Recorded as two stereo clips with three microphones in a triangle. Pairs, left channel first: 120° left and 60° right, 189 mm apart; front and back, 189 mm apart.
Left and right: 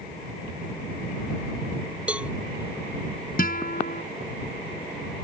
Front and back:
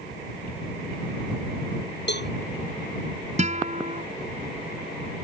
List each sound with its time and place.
2.1 s a cowbell: 25° left
3.4 s a guitar: 140° left